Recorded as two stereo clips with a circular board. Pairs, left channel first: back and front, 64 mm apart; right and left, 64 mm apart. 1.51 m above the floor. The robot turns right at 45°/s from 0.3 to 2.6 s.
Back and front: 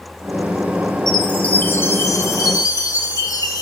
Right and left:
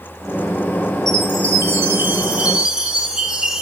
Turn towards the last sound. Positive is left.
turn(degrees=165)